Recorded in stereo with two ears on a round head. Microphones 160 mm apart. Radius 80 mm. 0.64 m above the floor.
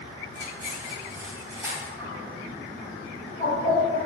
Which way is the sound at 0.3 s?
20° right (ahead or behind).